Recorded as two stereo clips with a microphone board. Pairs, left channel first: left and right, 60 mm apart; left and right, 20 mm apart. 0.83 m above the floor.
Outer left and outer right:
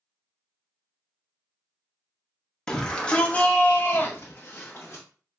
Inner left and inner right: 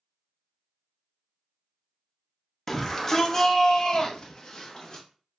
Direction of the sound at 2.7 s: 15° left (ahead or behind).